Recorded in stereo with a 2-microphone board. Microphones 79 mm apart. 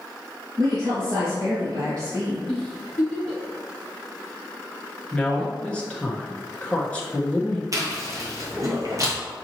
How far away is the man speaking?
About 1.2 m.